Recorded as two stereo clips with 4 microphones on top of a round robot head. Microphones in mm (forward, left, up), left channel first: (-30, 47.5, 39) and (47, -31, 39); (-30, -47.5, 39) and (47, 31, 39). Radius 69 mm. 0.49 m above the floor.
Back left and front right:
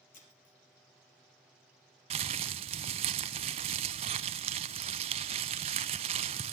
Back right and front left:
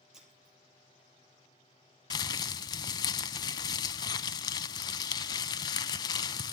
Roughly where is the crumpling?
Right.